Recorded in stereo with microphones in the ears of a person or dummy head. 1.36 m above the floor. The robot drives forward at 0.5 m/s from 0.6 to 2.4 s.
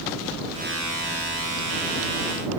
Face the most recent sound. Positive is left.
No sound to turn to.